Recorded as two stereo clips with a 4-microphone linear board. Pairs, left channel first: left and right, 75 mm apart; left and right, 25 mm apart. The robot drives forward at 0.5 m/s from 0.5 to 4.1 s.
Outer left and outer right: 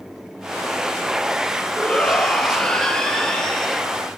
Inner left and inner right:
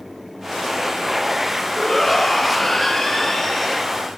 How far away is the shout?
About 4 m.